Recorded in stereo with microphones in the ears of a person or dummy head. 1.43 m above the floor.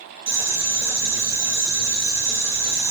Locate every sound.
0.3 s boiling: 75° right (ahead or behind), 1.9 m